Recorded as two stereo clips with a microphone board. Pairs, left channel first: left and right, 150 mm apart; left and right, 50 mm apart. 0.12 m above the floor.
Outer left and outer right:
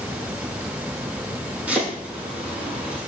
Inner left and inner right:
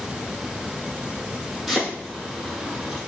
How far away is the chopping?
About 2.5 m.